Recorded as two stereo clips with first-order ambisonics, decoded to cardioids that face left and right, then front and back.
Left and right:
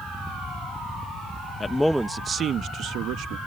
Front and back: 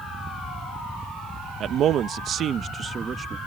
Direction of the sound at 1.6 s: 155° left.